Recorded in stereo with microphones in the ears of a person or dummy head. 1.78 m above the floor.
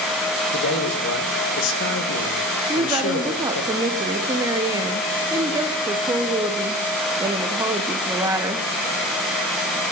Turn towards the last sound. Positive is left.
turn(degrees=-15)  # may be behind; listen again after turning